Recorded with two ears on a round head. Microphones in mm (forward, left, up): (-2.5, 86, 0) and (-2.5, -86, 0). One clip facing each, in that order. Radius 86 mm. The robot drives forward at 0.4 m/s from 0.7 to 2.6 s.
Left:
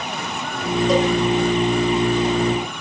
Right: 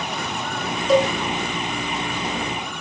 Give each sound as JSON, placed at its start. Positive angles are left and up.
{"t": 0.9, "sound": "a cowbell", "side_deg": 15, "distance_m": 1.7}